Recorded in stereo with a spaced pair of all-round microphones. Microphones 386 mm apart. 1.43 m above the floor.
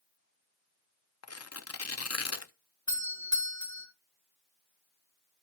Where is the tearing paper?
40° left (ahead or behind), 0.5 m.